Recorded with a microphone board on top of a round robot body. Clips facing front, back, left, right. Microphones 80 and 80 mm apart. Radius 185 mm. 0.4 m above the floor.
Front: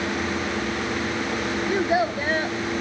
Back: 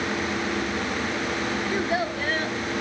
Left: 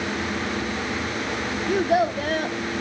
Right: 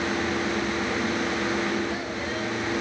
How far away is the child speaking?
About 0.8 m.